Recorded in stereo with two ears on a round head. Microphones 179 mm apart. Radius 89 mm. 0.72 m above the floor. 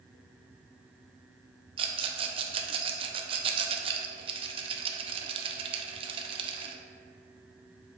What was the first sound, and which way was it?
A rattle, 25° right (ahead or behind).